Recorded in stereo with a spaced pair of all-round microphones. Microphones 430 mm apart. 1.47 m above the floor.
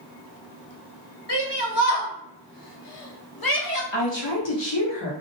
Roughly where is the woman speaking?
Left.